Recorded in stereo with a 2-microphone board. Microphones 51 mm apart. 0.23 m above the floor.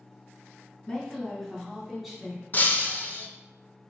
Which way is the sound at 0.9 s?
20° left (ahead or behind).